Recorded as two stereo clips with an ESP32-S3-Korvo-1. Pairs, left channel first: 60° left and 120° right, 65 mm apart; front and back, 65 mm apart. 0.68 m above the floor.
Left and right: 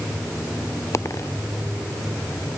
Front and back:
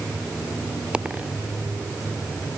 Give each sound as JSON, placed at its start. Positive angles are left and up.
{"t": 0.9, "sound": "a dropped coin", "azimuth_deg": 105}